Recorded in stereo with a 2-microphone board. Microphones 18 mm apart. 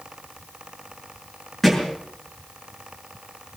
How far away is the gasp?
I don't hear a gasp.